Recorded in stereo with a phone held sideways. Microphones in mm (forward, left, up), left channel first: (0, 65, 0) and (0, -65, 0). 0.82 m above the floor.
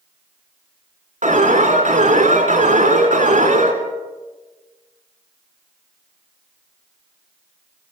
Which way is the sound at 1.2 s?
70° right (ahead or behind).